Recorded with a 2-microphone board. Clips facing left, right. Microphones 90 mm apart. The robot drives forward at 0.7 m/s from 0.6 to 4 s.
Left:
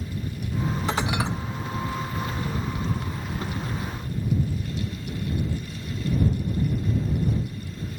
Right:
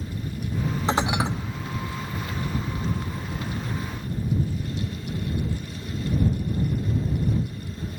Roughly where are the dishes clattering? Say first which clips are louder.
Right 4 dB; right.